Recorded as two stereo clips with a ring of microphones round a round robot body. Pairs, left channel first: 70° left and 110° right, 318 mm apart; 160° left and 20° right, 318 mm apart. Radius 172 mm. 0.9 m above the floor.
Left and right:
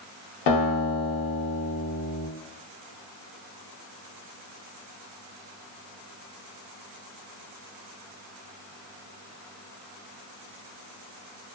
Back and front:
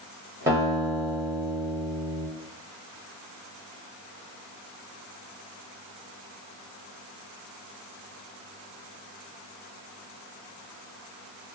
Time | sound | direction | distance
0.5 | a guitar | 60° left | 0.9 m